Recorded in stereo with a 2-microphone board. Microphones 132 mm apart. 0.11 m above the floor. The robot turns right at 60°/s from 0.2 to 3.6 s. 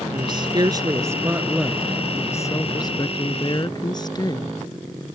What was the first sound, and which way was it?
A woman speaking, 95° right.